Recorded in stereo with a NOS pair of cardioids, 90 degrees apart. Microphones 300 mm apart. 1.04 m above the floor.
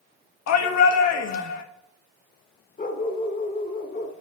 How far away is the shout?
About 1.4 m.